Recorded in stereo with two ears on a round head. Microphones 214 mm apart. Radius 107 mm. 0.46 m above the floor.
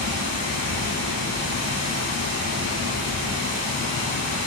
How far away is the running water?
About 1.3 m.